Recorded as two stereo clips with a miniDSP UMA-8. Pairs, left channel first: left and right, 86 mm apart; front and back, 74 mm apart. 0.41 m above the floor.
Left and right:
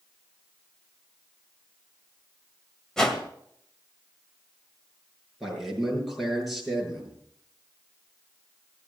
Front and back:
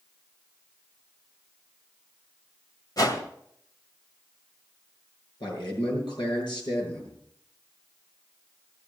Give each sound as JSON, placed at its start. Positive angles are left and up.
{"t": 3.0, "sound": "a whoosh", "azimuth_deg": 5, "distance_m": 1.9}
{"t": 5.4, "sound": "a man speaking", "azimuth_deg": 0, "distance_m": 7.5}